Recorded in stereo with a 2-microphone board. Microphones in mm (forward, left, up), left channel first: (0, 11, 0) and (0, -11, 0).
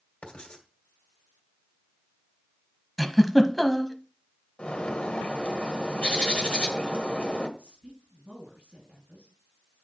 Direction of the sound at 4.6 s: 60° left (ahead or behind).